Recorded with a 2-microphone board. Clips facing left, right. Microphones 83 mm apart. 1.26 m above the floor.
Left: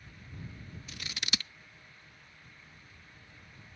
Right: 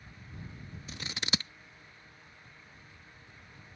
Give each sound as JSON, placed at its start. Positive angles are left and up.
{"t": 0.9, "sound": "scissors", "side_deg": -25}